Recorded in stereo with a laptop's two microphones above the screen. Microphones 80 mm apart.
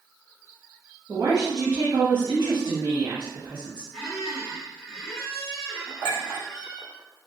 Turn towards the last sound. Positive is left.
turn(degrees=-80)